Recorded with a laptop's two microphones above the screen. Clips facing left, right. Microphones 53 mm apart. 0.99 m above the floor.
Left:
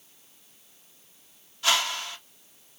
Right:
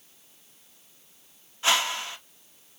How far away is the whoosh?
About 1.8 m.